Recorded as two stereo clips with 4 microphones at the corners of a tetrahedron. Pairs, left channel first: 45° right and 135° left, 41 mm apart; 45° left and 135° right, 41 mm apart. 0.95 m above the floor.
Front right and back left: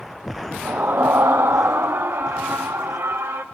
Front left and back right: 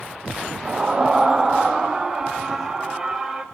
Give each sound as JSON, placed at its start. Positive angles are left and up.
{"t": 0.7, "sound": "a scream", "azimuth_deg": 160, "distance_m": 0.6}